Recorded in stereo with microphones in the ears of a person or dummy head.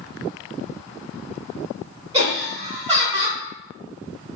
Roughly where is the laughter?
Right.